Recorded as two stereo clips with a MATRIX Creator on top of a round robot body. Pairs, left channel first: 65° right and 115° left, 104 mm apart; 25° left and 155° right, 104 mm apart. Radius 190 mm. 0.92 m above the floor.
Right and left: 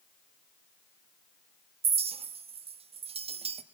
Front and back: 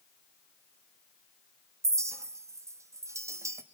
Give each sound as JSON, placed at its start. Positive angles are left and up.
{"t": 1.8, "sound": "a clink", "azimuth_deg": 140, "distance_m": 1.0}